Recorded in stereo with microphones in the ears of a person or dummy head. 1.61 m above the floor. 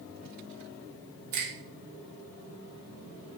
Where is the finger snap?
50° right (ahead or behind), 1.3 m.